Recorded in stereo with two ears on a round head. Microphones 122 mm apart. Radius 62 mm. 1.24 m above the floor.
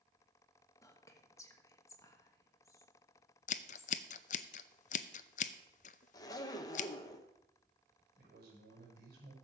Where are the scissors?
55° left (ahead or behind), 0.5 m.